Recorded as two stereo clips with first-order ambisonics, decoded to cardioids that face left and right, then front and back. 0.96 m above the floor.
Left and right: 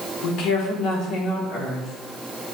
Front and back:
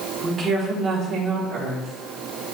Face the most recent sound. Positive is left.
turn(degrees=140)